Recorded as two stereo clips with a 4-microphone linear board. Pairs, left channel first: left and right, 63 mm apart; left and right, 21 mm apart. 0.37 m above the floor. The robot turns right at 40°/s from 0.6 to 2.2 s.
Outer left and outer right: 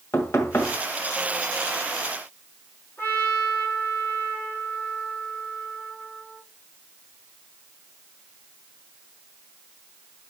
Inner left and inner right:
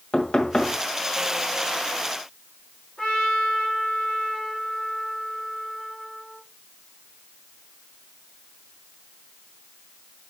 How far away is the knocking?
About 1.7 m.